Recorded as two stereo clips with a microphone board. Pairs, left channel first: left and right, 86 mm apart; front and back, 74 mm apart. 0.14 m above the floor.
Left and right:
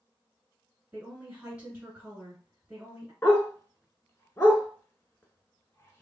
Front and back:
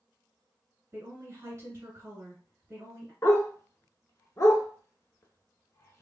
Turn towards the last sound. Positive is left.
turn(degrees=35)